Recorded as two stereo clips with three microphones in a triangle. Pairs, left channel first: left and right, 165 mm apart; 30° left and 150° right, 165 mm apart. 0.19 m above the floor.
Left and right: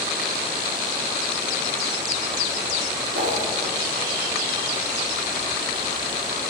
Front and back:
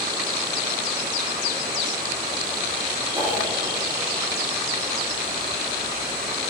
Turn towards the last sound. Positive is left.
turn(degrees=-90)